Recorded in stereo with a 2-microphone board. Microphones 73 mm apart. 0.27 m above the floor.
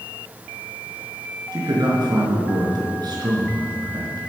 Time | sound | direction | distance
1.5 | a man speaking | 65° right (ahead or behind) | 4.5 m